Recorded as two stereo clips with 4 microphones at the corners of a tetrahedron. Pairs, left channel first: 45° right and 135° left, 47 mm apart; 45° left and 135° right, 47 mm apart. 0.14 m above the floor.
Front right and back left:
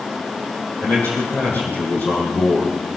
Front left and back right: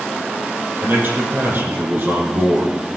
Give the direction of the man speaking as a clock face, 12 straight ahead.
3 o'clock.